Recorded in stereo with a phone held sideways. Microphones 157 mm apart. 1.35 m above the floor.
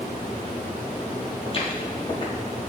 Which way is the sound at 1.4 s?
35° left (ahead or behind).